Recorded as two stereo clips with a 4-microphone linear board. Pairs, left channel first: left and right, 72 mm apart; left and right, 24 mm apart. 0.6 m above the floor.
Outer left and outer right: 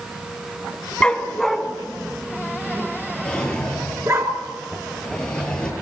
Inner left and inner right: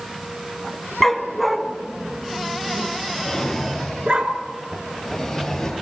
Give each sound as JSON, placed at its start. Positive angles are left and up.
{"t": 1.0, "sound": "a dog barking", "side_deg": 15, "distance_m": 1.9}
{"t": 3.2, "sound": "a drawer", "side_deg": 10, "distance_m": 7.0}